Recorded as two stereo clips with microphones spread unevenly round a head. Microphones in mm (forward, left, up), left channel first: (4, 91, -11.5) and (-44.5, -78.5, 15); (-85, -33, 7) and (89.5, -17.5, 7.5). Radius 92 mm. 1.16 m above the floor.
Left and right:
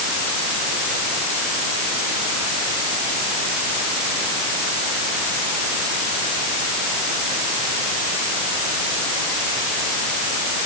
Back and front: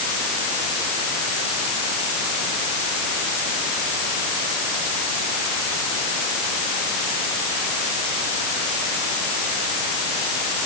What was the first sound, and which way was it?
Only background noise.